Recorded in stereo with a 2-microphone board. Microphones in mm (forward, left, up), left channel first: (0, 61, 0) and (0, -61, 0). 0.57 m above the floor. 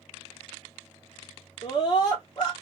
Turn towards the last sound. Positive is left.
turn(degrees=35)  # may be behind; listen again after turning